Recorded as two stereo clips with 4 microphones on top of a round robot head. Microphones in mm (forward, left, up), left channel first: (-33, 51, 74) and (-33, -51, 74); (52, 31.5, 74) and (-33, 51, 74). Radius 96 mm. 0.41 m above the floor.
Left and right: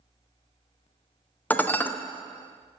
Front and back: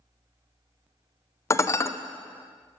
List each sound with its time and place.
1.5 s dishes clattering: 30° left, 0.5 m